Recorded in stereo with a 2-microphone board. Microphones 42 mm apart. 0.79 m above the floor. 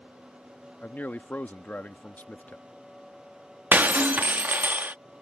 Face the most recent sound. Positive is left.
turn(degrees=-50)  # may be behind; listen again after turning